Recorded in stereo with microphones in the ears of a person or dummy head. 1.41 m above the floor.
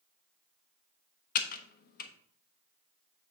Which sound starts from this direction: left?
Typing on a keyboard, at 1.4 s.